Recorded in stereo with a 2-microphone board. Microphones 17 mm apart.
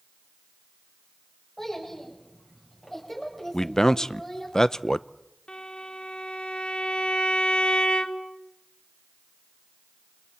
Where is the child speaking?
25° left (ahead or behind), 7.5 m; by 4.5 s 20° left (ahead or behind), 5.5 m.